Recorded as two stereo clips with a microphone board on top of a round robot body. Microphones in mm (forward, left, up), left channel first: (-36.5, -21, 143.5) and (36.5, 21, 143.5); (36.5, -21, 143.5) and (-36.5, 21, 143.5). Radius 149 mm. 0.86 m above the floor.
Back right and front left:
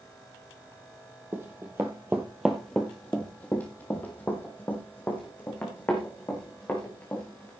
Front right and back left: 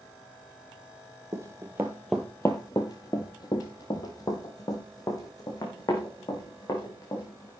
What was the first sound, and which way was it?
Running footsteps, 95° left.